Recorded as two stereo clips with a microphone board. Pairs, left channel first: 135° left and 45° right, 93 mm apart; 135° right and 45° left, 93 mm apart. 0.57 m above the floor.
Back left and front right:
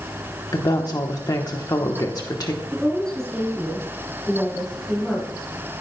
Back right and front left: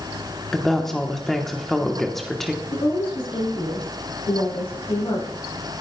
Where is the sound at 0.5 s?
140° left, 1.0 m.